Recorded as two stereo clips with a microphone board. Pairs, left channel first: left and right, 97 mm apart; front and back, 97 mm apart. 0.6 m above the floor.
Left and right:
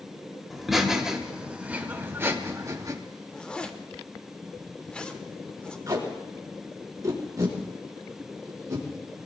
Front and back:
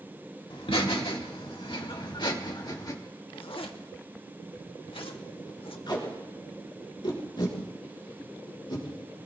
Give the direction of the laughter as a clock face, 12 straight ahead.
12 o'clock.